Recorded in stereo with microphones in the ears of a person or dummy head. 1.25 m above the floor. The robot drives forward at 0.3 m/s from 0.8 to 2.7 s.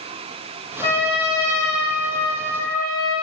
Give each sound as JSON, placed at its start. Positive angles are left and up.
{"t": 0.8, "sound": "a trumpet", "side_deg": 35, "distance_m": 1.1}